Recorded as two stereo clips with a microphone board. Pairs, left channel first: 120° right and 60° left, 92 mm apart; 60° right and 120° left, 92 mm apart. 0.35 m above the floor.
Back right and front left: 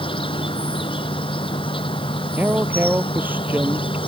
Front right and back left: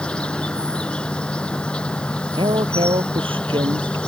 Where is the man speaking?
130° left.